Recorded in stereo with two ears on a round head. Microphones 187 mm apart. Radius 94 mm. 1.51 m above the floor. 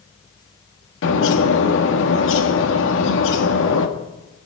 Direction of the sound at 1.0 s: 65° left (ahead or behind).